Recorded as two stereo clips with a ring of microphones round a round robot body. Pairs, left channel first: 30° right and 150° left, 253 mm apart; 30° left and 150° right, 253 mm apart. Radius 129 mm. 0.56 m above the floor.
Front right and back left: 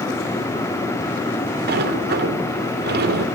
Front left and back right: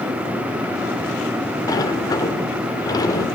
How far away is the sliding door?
About 2 m.